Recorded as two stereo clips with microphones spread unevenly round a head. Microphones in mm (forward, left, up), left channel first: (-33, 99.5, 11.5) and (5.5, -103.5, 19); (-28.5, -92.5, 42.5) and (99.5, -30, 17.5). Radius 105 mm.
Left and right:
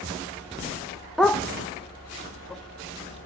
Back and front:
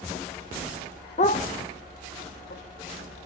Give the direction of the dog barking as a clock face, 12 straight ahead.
6 o'clock.